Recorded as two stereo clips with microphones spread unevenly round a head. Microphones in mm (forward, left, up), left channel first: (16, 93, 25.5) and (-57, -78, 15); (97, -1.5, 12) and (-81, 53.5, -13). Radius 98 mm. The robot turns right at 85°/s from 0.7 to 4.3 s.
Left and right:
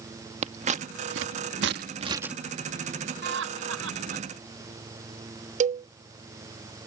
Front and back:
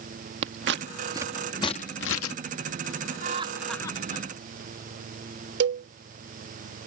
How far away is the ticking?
No ticking in this recording.